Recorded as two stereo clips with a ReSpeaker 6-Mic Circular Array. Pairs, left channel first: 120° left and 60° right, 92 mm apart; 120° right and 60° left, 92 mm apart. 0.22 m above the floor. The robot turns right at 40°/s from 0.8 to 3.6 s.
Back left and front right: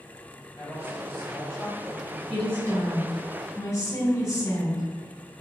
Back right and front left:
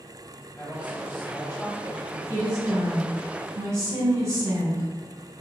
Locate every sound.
0.6 s a woman speaking: 175° left, 1.6 m; by 2.2 s 130° right, 1.6 m
2.3 s a woman speaking: 45° left, 1.8 m; by 4.9 s 95° left, 1.8 m